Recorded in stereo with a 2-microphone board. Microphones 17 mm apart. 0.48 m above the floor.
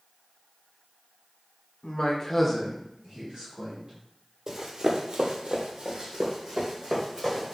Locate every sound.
1.8 s a man speaking: 50° left (ahead or behind), 1.0 m; by 3.9 s 50° right (ahead or behind), 2.0 m
4.5 s running footsteps: 30° right (ahead or behind), 0.9 m; by 7.5 s 40° right (ahead or behind), 2.5 m